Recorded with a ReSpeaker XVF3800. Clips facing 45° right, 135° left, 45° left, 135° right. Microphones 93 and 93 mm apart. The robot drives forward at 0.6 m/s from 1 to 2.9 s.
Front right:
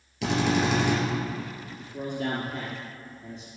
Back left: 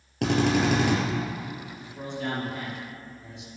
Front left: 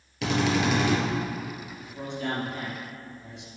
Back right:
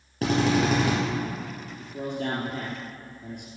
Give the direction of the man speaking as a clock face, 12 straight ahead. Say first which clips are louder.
Front right 4 dB, back right 4 dB; 3 o'clock.